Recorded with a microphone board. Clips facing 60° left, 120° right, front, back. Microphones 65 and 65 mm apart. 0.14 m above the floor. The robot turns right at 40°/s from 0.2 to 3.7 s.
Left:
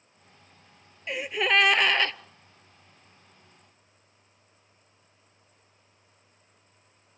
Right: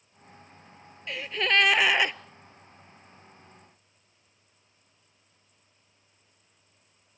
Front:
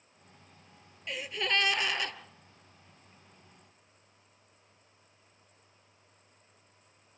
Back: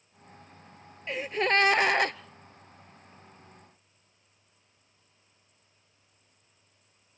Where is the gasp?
125° left, 0.6 m; by 2.1 s 170° left, 0.6 m.